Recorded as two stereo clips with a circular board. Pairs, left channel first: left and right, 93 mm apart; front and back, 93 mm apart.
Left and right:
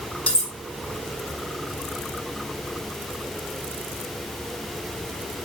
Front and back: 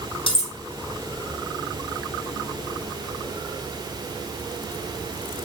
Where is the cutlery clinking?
15° left, 2.5 m.